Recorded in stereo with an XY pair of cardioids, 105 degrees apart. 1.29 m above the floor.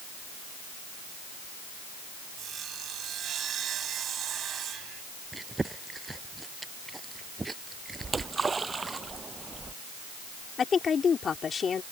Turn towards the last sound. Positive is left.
turn(degrees=45)